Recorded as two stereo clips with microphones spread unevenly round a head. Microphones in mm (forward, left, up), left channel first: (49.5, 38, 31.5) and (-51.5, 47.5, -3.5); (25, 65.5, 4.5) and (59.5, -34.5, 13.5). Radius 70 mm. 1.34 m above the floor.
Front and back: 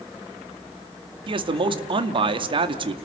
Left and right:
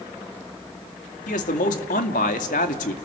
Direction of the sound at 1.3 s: 135° left.